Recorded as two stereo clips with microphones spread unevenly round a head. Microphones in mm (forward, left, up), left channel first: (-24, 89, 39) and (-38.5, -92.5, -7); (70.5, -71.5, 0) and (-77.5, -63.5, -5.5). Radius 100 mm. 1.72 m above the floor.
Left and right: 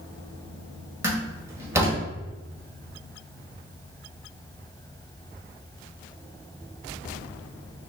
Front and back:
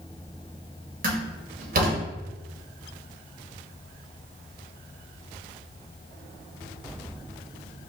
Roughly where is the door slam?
Behind.